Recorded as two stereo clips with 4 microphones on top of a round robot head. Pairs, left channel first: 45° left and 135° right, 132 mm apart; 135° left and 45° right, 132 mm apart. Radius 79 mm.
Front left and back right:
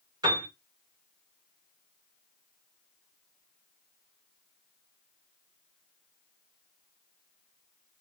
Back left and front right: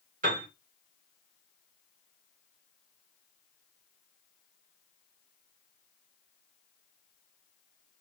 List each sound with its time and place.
0.2 s a piano: 70° right, 2 m